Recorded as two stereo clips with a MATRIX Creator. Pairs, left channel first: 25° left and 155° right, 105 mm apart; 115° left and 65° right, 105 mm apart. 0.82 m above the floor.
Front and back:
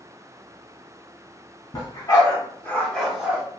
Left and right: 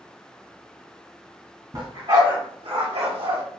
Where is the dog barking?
15° right, 1.9 m; by 3.4 s 85° right, 1.3 m.